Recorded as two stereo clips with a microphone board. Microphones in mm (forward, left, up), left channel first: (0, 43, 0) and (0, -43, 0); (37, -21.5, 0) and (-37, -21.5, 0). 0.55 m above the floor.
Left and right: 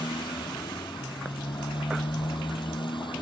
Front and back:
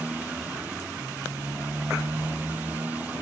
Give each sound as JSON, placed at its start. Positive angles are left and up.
{"t": 0.0, "sound": "a motorcycle", "azimuth_deg": 110}